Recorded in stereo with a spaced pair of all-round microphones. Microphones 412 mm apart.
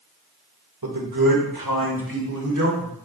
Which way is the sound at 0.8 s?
65° right (ahead or behind).